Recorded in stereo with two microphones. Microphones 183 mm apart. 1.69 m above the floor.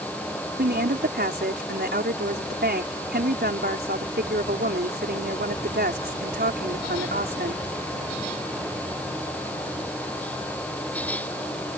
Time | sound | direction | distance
0.6 | a woman speaking | 65° right (ahead or behind) | ?